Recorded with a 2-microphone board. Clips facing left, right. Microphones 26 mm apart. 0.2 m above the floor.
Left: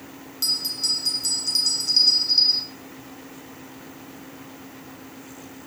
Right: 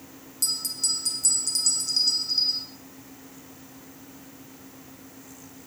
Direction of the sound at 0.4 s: 35° left (ahead or behind).